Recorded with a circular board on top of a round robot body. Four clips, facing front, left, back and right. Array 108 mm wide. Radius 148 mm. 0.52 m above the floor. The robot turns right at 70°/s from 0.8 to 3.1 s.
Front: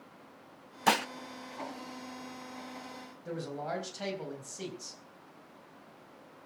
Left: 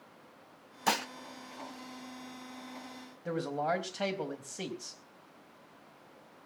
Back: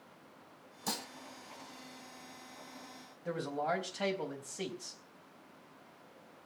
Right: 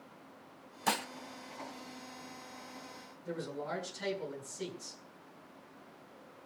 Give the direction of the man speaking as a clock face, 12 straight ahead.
8 o'clock.